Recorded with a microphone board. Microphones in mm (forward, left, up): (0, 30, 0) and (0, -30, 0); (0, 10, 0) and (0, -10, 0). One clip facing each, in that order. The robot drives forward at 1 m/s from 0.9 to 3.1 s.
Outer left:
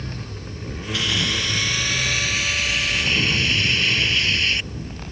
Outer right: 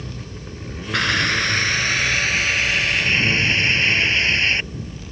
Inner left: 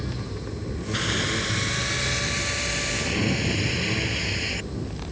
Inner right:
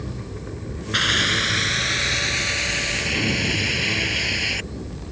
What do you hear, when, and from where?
0.9 s a hiss: 55° right (ahead or behind); by 4.7 s 35° right (ahead or behind)